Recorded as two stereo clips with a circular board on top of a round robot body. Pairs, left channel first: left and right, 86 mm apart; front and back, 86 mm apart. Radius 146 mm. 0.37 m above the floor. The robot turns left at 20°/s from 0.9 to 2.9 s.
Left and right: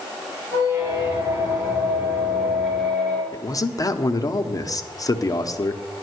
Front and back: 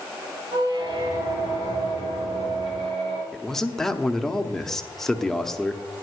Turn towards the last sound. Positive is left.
turn(degrees=85)